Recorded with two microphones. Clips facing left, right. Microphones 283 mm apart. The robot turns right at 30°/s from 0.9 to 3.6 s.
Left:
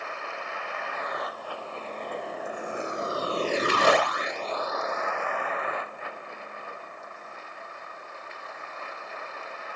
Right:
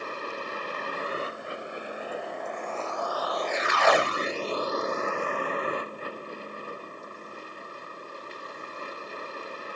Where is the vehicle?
40° right (ahead or behind).